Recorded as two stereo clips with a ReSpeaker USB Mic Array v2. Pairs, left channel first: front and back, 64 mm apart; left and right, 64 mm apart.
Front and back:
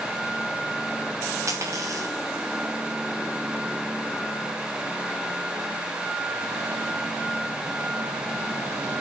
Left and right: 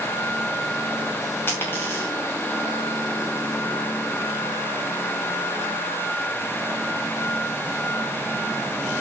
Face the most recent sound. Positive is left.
turn(degrees=140)